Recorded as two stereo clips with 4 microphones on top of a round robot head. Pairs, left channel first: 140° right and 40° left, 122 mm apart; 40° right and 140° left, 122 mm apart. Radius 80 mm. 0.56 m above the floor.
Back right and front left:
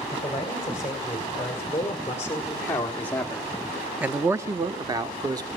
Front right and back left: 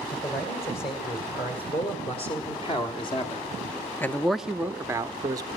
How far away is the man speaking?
About 3 m.